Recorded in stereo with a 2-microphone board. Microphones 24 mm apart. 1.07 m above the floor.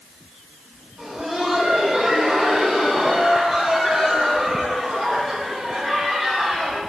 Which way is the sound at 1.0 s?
15° right (ahead or behind).